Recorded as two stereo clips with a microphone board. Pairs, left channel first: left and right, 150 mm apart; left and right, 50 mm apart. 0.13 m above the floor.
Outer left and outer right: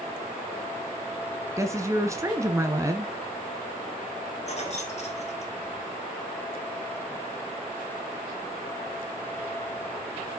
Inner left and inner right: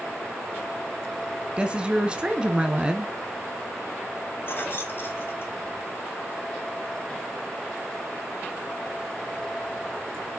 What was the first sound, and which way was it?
A woman speaking, 20° right (ahead or behind).